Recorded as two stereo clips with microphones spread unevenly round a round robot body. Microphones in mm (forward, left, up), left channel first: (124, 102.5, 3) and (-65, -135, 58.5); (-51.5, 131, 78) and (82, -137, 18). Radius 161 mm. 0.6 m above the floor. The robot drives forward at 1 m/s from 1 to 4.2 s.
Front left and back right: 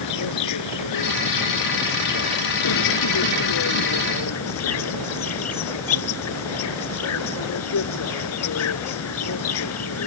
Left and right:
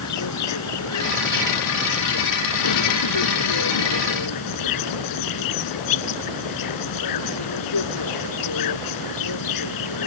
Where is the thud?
No thud in this recording.